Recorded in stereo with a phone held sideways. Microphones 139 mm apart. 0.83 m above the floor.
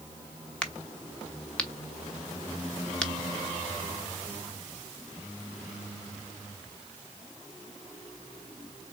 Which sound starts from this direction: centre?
A crack, at 0.6 s.